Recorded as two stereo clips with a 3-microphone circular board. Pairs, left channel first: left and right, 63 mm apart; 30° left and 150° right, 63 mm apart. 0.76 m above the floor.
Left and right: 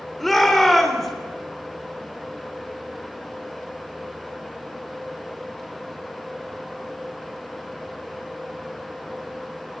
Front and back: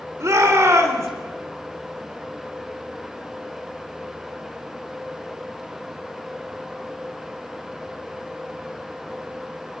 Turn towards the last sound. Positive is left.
turn(degrees=175)